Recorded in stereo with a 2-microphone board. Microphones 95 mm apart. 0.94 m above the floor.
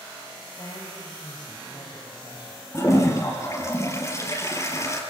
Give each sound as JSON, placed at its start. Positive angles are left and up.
{"t": 0.6, "sound": "a woman speaking", "side_deg": 50, "distance_m": 5.0}
{"t": 2.7, "sound": "a toilet flushing", "side_deg": 30, "distance_m": 4.0}